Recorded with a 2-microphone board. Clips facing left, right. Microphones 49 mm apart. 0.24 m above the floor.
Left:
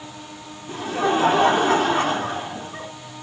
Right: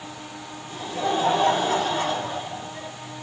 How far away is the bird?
I don't hear a bird.